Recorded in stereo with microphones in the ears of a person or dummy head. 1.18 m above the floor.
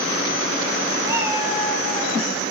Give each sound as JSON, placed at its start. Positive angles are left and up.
{"t": 1.1, "sound": "a cat meowing", "side_deg": -20, "distance_m": 1.0}